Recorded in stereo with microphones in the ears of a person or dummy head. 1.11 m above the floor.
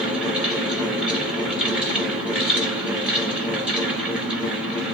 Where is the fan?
5° right (ahead or behind), 1.0 m.